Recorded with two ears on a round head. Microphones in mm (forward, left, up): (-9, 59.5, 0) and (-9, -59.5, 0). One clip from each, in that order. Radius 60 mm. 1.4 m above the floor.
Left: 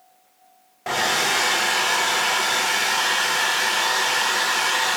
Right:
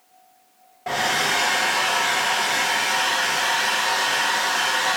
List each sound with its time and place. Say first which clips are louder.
0.9 s a hair dryer: even; 35° left (ahead or behind), 0.5 m